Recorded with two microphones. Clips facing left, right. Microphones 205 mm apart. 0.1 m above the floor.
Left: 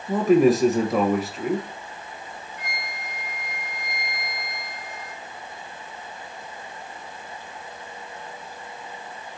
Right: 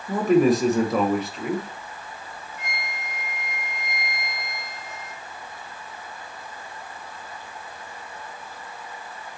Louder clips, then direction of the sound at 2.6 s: Even; 25° right (ahead or behind).